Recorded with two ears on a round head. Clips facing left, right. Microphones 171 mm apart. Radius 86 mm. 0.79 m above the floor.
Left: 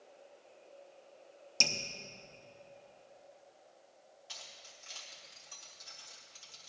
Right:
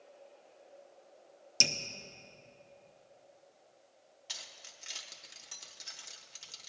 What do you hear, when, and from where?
1.6 s dripping: 15° right (ahead or behind), 0.6 m
4.3 s keys jangling: 60° right (ahead or behind), 1.2 m